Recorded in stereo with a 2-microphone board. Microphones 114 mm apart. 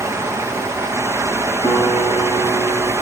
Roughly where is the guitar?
Left.